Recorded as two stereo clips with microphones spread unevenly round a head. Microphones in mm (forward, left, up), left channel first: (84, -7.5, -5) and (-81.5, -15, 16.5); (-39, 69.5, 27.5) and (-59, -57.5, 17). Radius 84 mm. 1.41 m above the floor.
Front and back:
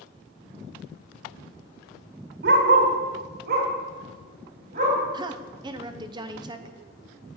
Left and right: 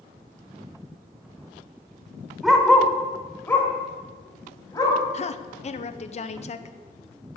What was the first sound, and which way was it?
A dog barking, 170° left.